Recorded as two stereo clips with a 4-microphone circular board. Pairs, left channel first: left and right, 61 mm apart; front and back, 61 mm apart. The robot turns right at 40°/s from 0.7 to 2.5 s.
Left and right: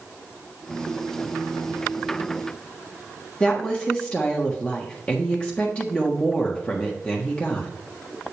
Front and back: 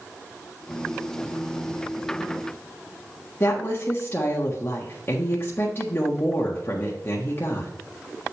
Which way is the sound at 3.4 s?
25° left.